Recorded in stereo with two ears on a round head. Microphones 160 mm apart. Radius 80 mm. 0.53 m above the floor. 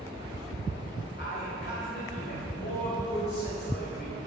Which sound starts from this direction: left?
A man speaking, at 1.2 s.